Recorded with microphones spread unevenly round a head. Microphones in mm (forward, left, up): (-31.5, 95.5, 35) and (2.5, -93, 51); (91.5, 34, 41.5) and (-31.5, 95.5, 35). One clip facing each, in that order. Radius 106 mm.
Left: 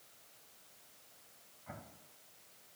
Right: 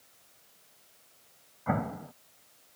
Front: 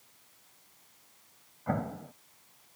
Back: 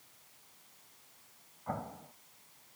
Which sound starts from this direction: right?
An explosion, at 1.7 s.